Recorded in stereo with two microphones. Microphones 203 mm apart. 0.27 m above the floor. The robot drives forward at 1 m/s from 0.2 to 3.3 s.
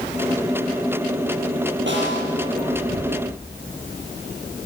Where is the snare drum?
75° right (ahead or behind), 7 m.